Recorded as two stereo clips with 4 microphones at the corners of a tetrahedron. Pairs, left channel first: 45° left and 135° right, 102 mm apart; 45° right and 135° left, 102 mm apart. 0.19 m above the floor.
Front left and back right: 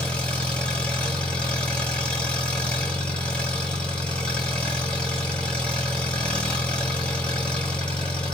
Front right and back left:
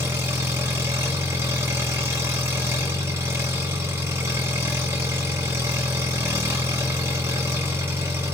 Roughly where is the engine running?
Left.